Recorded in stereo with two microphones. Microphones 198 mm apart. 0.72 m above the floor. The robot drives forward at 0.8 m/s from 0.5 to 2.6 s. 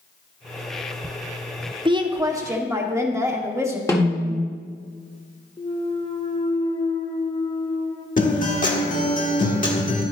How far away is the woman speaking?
About 0.7 m.